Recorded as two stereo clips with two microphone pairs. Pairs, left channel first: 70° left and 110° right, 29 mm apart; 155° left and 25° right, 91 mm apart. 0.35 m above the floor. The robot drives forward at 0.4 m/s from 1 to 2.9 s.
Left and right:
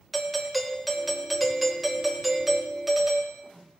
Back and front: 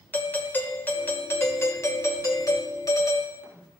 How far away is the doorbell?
About 1.2 m.